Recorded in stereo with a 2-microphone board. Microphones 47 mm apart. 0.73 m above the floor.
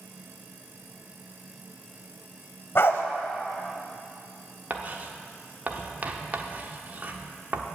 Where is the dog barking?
50° left (ahead or behind), 1.0 m.